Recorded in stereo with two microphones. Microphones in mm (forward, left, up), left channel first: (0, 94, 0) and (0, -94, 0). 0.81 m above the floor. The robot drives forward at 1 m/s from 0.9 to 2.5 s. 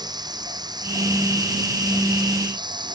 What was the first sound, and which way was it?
Running water, 20° right (ahead or behind).